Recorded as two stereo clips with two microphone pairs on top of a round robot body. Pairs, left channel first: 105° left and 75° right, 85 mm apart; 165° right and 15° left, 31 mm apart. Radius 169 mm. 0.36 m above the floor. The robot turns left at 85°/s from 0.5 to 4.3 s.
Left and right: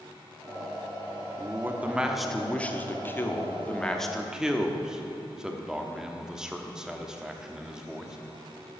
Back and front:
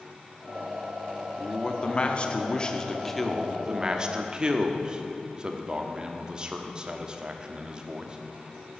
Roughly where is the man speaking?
Right.